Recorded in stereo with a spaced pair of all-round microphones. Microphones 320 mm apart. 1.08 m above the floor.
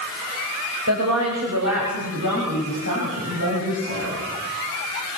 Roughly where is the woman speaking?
Right.